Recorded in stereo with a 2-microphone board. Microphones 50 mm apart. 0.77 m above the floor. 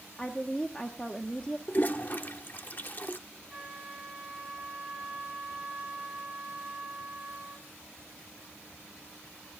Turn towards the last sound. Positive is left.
turn(degrees=-10)  # may be behind; listen again after turning